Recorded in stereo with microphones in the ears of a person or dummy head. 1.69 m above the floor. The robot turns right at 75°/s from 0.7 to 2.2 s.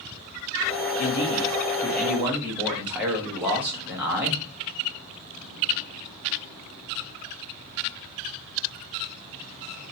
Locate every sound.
1.0 s a man speaking: 100° left, 1.0 m; by 4.4 s 170° right, 1.0 m